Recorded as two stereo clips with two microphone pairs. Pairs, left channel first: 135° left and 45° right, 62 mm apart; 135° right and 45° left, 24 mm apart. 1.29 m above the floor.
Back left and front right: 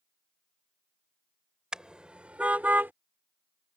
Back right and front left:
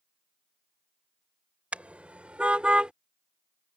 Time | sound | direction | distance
1.7 | a car horn | 35° left | ?